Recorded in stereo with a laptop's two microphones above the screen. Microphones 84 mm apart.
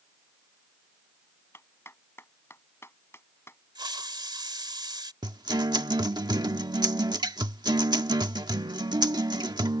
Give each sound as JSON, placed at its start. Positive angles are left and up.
{"t": 1.5, "sound": "a clap", "side_deg": 30}
{"t": 3.8, "sound": "a hiss", "side_deg": -65}
{"t": 5.2, "sound": "a guitar", "side_deg": -60}